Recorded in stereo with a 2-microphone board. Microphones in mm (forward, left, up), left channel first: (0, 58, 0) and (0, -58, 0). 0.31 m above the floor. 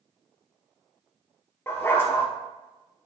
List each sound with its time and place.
1.7 s a dog barking: 20° left (ahead or behind), 2.0 m